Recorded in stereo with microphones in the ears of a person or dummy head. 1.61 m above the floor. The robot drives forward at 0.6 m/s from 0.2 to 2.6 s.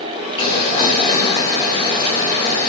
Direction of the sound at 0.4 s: 25° left (ahead or behind).